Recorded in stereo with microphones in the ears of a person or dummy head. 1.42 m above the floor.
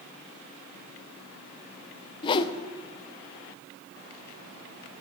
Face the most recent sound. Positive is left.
turn(degrees=30)  # may be behind; listen again after turning